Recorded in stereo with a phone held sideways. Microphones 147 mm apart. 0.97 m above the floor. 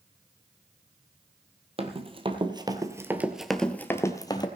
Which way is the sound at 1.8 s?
40° right (ahead or behind).